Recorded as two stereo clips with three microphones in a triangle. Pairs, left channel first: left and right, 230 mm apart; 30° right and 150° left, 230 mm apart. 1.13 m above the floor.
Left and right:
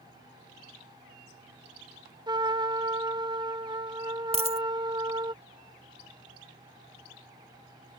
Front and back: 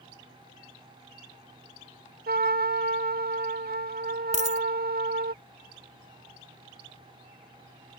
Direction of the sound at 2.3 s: 160° right.